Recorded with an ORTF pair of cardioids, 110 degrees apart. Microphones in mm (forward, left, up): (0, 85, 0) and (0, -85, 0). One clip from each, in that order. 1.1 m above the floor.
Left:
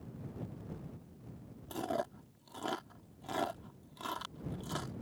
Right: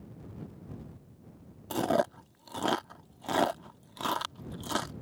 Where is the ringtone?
No ringtone in this recording.